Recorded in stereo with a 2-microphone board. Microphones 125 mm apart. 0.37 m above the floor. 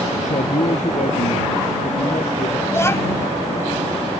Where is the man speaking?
75° left (ahead or behind).